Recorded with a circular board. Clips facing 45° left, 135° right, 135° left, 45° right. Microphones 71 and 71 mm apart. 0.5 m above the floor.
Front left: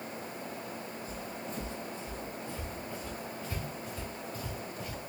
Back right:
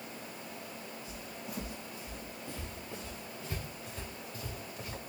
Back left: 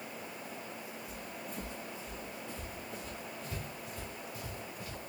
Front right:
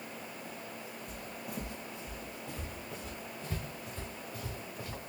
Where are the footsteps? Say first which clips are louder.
Front left 4 dB, front right 1 dB; 50° right, 1.1 m; by 5.0 s 75° right, 3 m.